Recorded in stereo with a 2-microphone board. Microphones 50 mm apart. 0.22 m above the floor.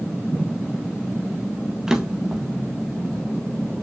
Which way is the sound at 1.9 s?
10° right (ahead or behind).